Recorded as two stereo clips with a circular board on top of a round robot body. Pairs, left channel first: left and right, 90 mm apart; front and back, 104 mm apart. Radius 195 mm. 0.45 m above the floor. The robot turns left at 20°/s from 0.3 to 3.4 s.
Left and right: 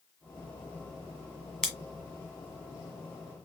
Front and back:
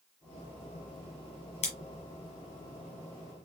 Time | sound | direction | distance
1.6 | scissors | 10° left | 1.5 m